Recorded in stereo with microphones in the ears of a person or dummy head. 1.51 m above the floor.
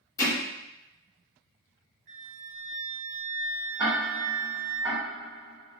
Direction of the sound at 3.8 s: 25° right (ahead or behind).